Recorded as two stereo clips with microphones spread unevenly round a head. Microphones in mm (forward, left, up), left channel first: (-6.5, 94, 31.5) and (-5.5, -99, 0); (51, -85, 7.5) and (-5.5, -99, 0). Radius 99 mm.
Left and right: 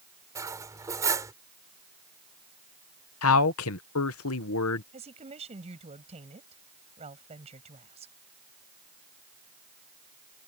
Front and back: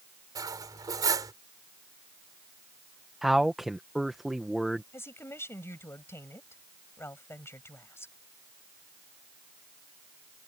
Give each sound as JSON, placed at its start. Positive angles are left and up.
{"t": 0.3, "sound": "cutlery clinking", "azimuth_deg": -170}
{"t": 3.2, "sound": "a man speaking", "azimuth_deg": 105}
{"t": 4.9, "sound": "a woman speaking", "azimuth_deg": -30}